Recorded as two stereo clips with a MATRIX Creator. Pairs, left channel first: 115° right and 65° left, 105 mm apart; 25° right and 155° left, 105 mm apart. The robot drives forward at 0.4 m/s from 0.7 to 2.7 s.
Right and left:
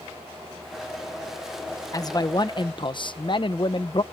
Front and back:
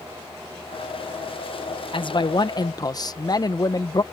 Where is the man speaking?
60° right; by 4.0 s 75° right.